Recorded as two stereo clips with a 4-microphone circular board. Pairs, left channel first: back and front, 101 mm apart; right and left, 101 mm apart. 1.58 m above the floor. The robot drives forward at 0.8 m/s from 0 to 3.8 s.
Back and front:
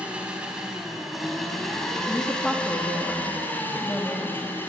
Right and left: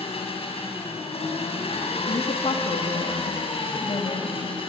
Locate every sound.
0.0 s an engine running: 75° right, 5.5 m; by 4.7 s 110° right, 5.5 m
2.1 s a woman speaking: 85° right, 3.5 m; by 4.5 s 110° right, 3.5 m